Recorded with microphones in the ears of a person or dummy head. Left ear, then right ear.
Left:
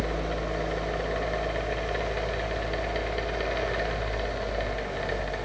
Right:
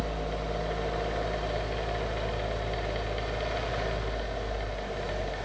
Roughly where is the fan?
Centre.